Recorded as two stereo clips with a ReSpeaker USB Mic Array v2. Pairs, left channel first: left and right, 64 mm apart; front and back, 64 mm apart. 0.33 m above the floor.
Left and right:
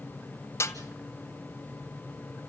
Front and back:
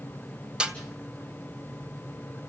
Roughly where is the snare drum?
Left.